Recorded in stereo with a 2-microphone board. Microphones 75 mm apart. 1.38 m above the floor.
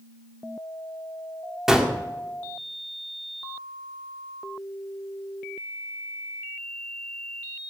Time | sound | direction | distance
1.7 | a gunshot | 5° right (ahead or behind) | 2 m